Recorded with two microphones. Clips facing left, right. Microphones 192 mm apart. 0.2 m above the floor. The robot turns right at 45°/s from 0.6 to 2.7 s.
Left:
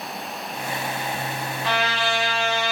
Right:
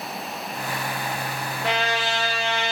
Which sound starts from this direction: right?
A trumpet, at 1.6 s.